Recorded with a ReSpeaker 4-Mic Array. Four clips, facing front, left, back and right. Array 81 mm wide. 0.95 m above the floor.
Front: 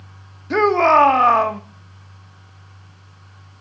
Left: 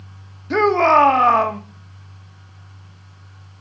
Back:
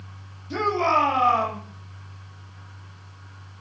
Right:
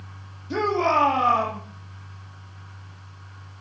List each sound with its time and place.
0.5 s a shout: 45° left, 1.6 m